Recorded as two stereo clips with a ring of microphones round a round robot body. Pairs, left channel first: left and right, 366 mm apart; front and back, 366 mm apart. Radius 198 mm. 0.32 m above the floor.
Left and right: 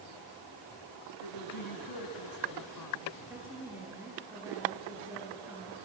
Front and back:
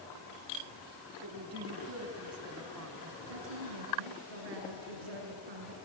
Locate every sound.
1.2 s a woman speaking: 125° left, 2 m
3.3 s a woman speaking: 175° right, 6 m